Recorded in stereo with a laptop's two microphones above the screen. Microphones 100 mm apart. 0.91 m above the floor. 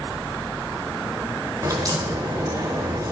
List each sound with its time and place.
1.6 s a crack: 40° right (ahead or behind), 2 m